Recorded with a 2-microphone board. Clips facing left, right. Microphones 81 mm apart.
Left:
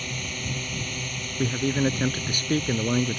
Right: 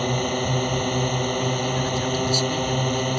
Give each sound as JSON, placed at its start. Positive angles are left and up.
{"t": 0.0, "sound": "a drone", "side_deg": -50}
{"t": 1.4, "sound": "a man speaking", "side_deg": 50}